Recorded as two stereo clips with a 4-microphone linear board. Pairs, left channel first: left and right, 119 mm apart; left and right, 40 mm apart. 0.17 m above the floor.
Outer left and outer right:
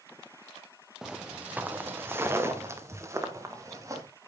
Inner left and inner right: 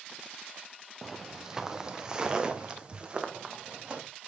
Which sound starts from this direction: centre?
Footsteps, at 1.0 s.